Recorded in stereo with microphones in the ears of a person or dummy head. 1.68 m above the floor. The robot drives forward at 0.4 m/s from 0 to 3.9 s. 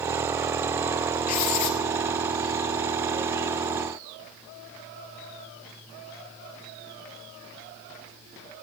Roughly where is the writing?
Left.